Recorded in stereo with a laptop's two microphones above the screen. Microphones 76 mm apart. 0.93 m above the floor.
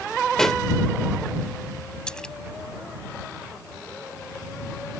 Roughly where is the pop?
Centre.